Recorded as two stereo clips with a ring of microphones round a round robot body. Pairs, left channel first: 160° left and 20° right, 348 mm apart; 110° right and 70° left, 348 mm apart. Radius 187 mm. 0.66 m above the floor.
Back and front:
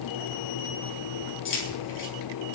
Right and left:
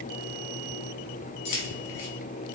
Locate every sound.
1.4 s keys jangling: 145° right, 5.5 m